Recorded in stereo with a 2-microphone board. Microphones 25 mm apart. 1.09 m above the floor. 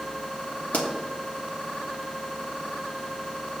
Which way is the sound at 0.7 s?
65° left (ahead or behind).